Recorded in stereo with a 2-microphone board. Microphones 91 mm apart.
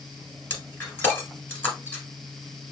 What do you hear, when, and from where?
0.5 s breaking glass: 15° left (ahead or behind), 1.6 m